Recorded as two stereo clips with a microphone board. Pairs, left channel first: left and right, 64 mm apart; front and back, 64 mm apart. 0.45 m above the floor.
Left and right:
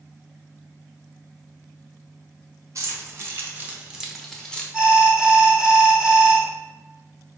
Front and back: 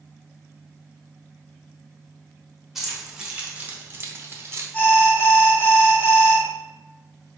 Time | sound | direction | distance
2.8 | keys jangling | 95° right | 1.1 m
4.7 | an alarm | 25° right | 1.1 m